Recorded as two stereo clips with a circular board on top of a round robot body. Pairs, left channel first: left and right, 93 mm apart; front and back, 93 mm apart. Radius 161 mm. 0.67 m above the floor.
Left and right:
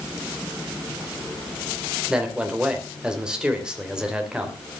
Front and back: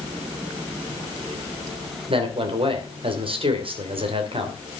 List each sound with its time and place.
2.1 s a man speaking: 170° right, 3 m